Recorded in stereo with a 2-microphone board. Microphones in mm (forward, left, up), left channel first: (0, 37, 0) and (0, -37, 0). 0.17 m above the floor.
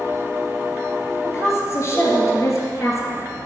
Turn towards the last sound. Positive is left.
turn(degrees=40)  # may be behind; listen again after turning